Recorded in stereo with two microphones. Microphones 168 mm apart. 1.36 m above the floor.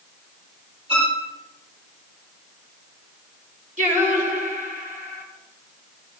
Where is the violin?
35° right (ahead or behind), 5.5 m.